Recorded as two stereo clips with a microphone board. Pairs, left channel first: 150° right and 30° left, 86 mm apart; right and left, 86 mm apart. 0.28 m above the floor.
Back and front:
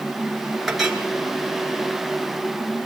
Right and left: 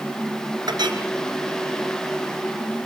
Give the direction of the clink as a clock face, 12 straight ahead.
8 o'clock.